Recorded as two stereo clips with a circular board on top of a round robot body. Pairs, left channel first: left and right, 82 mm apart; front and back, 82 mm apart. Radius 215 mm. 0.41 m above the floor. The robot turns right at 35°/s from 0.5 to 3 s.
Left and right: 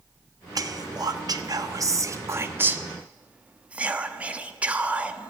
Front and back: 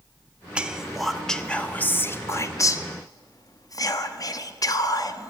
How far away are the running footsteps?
No running footsteps in this recording.